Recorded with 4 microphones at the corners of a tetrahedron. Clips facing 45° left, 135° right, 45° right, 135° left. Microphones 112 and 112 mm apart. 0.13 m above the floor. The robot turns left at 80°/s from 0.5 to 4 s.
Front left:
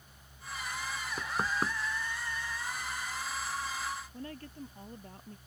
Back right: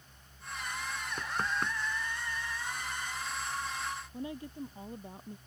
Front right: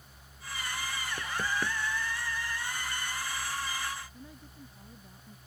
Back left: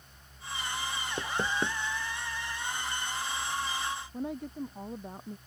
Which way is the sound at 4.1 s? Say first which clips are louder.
Back right 4 dB, back left 14 dB; 150° left.